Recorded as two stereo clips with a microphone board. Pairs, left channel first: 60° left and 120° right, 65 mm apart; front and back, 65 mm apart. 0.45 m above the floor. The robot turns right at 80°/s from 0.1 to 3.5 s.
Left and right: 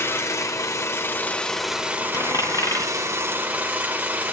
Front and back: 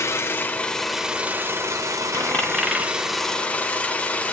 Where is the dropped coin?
45° left, 1.8 m; by 2.9 s 110° left, 1.8 m.